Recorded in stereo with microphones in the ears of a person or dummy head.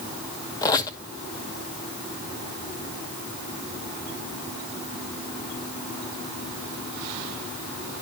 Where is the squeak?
20° left (ahead or behind), 0.9 m.